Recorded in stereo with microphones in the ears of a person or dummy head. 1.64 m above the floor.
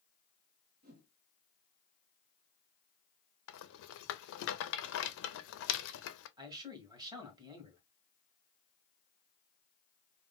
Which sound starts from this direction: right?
A whoosh, at 0.8 s.